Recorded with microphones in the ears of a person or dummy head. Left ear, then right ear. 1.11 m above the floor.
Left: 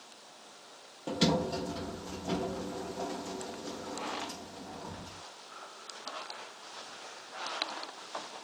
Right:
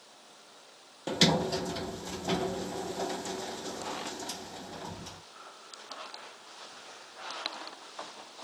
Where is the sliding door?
35° right (ahead or behind), 0.6 m.